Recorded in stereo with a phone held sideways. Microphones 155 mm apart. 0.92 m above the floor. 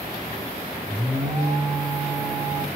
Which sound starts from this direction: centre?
An alarm, at 0.8 s.